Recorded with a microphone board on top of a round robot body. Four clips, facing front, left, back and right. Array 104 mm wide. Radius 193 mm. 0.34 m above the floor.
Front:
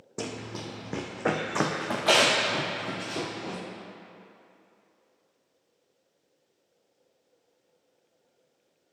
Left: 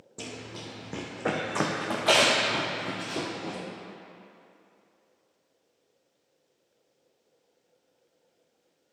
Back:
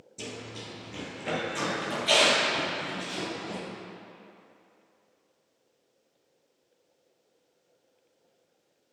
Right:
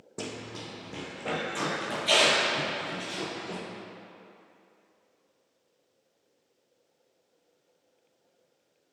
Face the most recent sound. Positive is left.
turn(degrees=55)